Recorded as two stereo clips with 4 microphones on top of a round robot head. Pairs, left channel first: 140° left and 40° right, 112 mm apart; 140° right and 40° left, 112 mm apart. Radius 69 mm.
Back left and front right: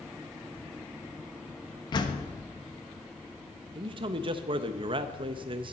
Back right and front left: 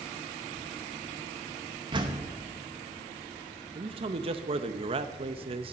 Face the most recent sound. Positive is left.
turn(degrees=5)